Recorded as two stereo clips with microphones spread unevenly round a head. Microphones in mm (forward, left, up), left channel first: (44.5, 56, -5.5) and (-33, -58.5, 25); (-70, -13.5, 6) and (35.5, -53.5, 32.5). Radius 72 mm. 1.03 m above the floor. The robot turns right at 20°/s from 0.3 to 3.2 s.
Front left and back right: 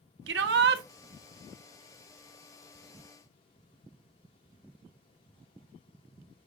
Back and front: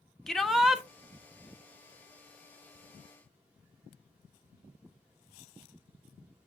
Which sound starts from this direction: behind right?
A shout, at 0.3 s.